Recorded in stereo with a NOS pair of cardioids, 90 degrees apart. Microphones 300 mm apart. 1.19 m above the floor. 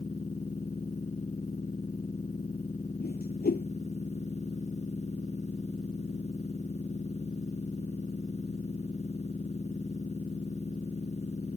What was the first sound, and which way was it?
A machine running, 20° left.